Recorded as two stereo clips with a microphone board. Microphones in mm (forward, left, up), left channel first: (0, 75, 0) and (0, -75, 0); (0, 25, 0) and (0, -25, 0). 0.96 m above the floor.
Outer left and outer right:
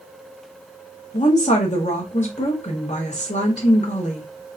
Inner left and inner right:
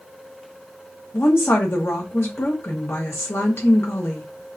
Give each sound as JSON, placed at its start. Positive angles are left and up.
{"t": 1.1, "sound": "a woman speaking", "side_deg": 50, "distance_m": 1.3}